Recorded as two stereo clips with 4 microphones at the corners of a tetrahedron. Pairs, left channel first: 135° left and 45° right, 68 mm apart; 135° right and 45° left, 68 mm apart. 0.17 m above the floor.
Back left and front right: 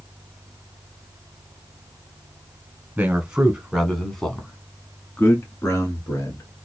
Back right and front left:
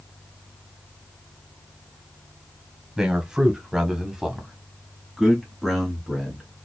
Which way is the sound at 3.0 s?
20° right.